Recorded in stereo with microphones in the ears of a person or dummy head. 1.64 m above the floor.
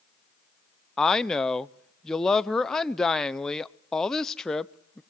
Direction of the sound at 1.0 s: 5° left (ahead or behind).